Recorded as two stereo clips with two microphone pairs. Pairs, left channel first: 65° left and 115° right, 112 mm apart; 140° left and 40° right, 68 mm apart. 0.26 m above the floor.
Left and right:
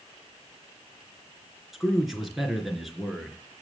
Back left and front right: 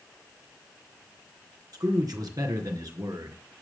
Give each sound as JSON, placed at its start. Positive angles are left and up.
{"t": 1.7, "sound": "a man speaking", "azimuth_deg": -25, "distance_m": 3.0}